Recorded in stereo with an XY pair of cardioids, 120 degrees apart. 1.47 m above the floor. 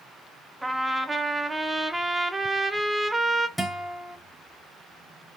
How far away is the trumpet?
About 0.5 m.